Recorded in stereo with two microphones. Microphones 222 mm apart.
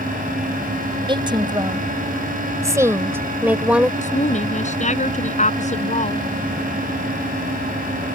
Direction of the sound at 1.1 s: 20° right (ahead or behind).